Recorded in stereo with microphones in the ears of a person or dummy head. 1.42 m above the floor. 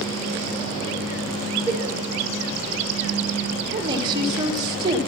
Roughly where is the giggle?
Centre.